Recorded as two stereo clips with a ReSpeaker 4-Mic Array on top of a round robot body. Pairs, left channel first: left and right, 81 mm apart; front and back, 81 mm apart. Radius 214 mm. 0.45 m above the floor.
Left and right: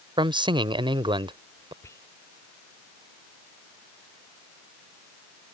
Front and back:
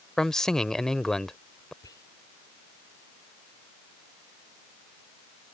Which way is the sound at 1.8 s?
35° left.